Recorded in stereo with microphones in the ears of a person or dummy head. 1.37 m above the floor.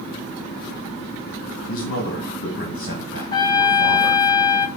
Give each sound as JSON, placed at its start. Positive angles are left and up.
{"t": 1.7, "sound": "a man speaking", "side_deg": 55, "distance_m": 1.9}
{"t": 3.3, "sound": "a trumpet", "side_deg": 20, "distance_m": 0.7}